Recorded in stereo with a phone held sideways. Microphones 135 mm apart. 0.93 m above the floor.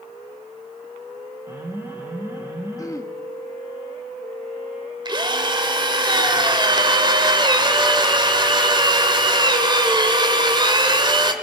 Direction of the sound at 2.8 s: 25° left (ahead or behind).